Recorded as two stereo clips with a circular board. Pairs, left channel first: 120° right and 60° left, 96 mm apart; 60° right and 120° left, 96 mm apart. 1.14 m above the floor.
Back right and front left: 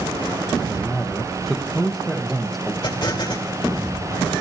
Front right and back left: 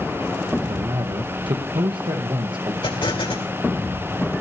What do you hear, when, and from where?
0.6 s a man speaking: 150° left, 0.9 m
2.8 s an explosion: 75° right, 3 m